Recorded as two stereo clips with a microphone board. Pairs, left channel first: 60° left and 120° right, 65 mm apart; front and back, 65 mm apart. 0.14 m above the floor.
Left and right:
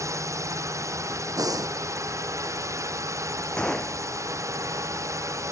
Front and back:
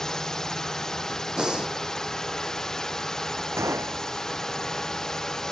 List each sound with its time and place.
0.0 s a drone: 85° right
1.4 s breathing: 105° right
3.6 s a gunshot: 135° left